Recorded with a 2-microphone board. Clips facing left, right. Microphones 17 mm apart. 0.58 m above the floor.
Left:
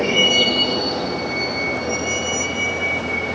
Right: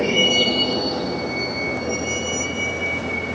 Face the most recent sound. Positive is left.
turn(degrees=10)  # may be behind; listen again after turning